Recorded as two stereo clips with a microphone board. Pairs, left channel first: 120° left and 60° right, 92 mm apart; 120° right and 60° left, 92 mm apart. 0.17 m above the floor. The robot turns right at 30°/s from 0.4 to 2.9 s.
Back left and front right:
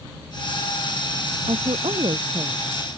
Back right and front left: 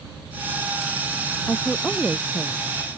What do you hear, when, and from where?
1.5 s a woman speaking: 50° right; by 2.6 s 15° right